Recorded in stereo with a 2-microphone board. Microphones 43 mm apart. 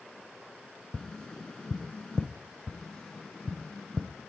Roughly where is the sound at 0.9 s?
Centre.